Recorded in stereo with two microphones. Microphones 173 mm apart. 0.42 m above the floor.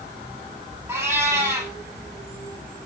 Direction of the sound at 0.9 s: 15° right (ahead or behind).